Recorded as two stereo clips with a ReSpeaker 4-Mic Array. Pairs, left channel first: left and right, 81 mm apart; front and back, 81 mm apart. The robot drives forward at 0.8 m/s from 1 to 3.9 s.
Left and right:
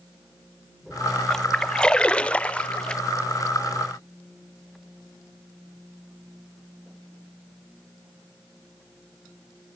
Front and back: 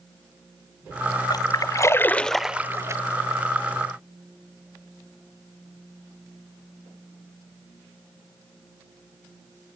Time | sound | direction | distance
1.3 | a splash | 10° left | 1.0 m